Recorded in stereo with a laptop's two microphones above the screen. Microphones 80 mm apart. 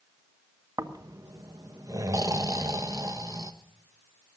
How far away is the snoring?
About 1.1 m.